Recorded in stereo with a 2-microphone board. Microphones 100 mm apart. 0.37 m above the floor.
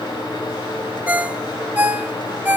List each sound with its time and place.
1.1 s a ringtone: 20° right (ahead or behind), 1.0 m